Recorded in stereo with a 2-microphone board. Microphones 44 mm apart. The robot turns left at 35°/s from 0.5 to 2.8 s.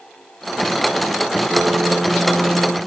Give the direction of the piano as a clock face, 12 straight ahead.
5 o'clock.